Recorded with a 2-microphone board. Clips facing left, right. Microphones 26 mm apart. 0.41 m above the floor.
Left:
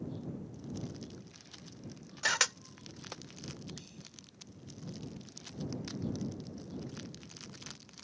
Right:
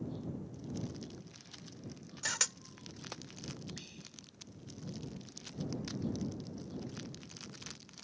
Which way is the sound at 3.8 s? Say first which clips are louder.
Right 1 dB; 30° right (ahead or behind).